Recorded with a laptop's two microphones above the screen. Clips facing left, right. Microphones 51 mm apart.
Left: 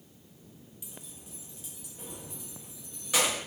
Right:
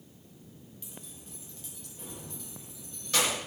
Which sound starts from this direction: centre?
Keys jangling, at 0.8 s.